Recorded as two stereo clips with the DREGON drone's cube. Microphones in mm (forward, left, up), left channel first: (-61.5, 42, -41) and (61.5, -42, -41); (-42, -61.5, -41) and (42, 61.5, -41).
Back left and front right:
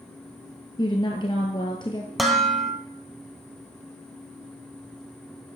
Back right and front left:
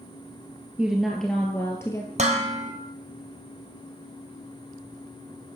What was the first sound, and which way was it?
A woman speaking, 130° left.